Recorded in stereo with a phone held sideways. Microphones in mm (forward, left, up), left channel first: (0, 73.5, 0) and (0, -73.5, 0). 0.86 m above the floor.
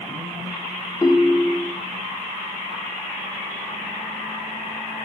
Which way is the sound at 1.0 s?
25° left (ahead or behind).